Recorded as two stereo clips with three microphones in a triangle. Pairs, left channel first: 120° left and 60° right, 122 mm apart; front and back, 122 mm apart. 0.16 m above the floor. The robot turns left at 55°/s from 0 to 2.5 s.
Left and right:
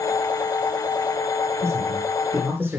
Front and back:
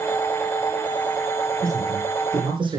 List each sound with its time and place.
1.6 s a man speaking: 85° right, 5.5 m; by 2.8 s 135° right, 5.5 m